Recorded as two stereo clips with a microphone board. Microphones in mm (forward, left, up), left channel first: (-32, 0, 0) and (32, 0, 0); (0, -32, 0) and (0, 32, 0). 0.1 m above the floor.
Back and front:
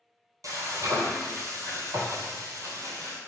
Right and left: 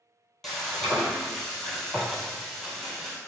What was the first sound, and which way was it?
Frying, 5° right.